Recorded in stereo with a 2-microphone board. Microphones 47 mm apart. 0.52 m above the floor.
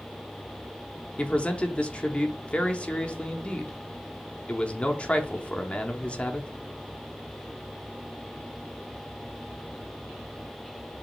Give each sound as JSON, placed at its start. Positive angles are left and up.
{"t": 1.2, "sound": "a man speaking", "side_deg": 25, "distance_m": 0.7}